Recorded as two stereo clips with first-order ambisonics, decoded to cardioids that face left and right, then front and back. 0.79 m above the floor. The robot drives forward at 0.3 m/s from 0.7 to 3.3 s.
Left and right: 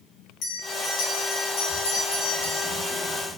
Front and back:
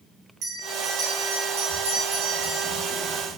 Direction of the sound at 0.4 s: 130° left.